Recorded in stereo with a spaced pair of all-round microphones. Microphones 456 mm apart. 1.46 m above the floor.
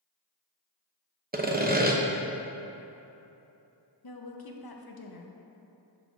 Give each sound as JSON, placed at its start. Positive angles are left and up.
{"t": 1.3, "sound": "sawing", "side_deg": -20, "distance_m": 0.6}
{"t": 4.0, "sound": "a woman speaking", "side_deg": 55, "distance_m": 0.7}